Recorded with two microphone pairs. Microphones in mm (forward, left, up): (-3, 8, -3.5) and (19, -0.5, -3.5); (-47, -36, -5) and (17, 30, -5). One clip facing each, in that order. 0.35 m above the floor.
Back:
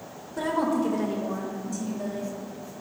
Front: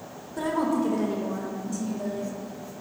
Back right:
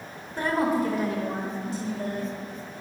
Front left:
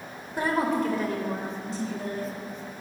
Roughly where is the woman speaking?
Left.